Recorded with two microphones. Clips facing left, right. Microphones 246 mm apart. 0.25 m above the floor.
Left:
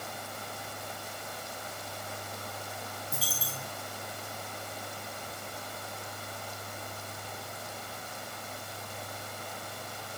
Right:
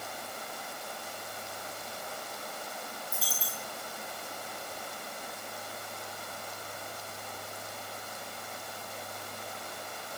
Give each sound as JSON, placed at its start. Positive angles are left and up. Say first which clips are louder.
{"t": 3.1, "sound": "a dropped coin", "louder": "left 1 dB", "side_deg": 75, "distance_m": 3.5}